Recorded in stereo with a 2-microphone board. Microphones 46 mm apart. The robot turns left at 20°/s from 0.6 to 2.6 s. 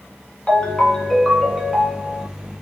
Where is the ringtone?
20° left, 1.2 m; by 2.3 s 15° right, 1.2 m.